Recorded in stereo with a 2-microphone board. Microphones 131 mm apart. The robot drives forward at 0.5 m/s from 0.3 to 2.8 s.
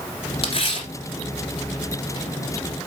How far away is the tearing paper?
About 1.8 m.